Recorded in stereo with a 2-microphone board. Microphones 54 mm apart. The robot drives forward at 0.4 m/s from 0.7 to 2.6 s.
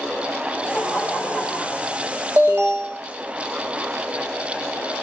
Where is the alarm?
50° right (ahead or behind), 1.4 m.